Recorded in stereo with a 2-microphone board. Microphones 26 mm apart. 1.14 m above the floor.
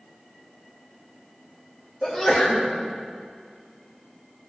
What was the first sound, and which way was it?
A sneeze, 25° left (ahead or behind).